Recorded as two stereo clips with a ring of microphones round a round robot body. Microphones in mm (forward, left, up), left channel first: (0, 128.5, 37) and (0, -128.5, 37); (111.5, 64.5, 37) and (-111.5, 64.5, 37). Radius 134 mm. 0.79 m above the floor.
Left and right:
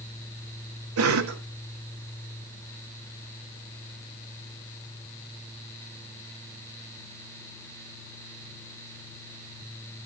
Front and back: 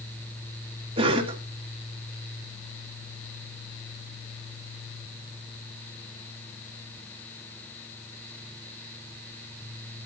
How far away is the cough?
About 1.9 m.